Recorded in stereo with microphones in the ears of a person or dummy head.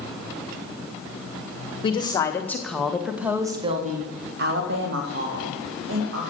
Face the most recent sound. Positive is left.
turn(degrees=-75)  # may be behind; listen again after turning